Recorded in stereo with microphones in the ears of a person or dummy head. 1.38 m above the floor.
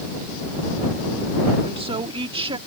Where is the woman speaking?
30° right (ahead or behind).